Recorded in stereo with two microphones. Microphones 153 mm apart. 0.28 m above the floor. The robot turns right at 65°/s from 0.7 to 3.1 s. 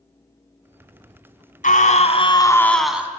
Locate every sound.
1.6 s a scream: 100° left, 2 m; by 3.1 s 165° right, 2 m